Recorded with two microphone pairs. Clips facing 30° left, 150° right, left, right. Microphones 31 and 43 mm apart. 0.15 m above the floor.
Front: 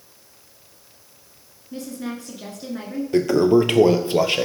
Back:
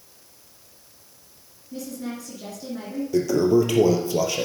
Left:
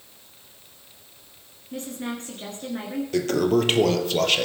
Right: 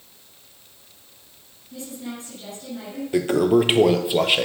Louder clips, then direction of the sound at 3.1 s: Front 3 dB, right 4 dB; 20° right.